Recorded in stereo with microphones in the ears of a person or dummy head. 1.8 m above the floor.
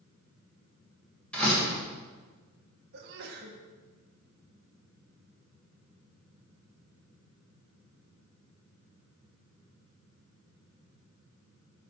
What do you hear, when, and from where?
1.3 s a door slam: 5° left (ahead or behind), 3 m
2.9 s a sneeze: 60° right (ahead or behind), 1.8 m